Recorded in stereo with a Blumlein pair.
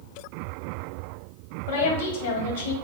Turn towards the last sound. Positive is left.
turn(degrees=50)